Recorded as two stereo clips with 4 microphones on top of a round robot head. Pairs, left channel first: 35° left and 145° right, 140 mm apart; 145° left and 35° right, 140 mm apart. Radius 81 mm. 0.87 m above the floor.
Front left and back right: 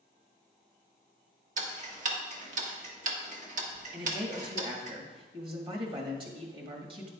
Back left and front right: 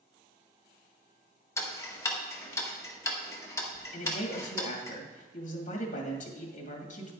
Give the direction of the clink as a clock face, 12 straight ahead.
No clink in this recording.